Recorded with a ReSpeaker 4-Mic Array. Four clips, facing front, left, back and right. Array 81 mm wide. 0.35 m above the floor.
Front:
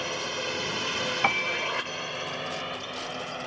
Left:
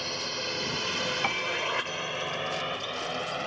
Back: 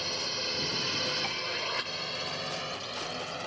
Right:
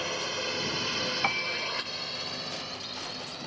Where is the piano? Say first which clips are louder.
Left 2 dB, front 8 dB; 5° right.